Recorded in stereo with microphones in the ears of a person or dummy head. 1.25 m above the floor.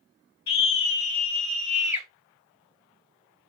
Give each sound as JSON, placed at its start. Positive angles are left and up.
{"t": 0.5, "sound": "a scream", "side_deg": 15, "distance_m": 1.6}